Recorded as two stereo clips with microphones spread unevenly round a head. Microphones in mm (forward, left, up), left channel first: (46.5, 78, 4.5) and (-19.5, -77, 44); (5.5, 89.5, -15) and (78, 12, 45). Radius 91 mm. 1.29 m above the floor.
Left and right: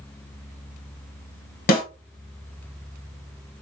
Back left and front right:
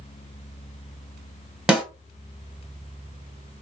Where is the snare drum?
50° left, 1.1 m.